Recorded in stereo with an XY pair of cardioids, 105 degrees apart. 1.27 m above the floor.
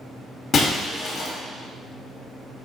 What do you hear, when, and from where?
0.5 s breaking glass: 45° left, 2.5 m